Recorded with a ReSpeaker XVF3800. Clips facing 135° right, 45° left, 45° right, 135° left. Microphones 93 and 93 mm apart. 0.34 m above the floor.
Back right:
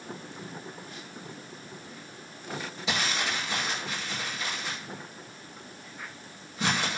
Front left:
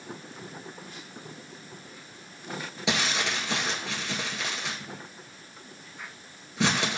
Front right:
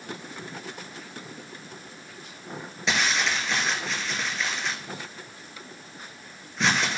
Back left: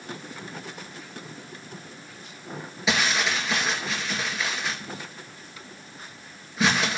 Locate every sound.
2.9 s crumpling: 50° left, 1.9 m